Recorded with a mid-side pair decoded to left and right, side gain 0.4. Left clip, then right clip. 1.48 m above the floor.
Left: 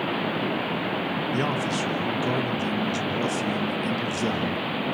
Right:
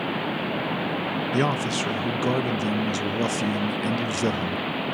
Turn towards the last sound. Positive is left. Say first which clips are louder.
# right 4 dB
turn(degrees=-35)